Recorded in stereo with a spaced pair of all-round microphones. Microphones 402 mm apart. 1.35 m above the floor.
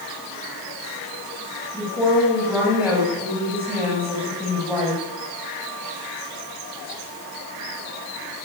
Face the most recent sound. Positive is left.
turn(degrees=-5)  # may be behind; listen again after turning